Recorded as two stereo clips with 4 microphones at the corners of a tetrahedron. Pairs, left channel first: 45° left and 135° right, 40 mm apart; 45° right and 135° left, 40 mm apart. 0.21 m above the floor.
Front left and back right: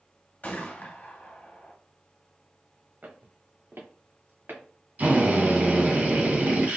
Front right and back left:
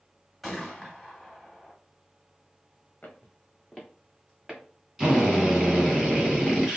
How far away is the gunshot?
About 1.1 m.